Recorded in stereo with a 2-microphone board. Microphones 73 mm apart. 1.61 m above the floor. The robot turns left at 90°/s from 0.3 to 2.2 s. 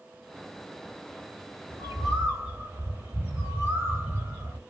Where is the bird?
100° right, 2.5 m; by 4.6 s 145° right, 2.5 m.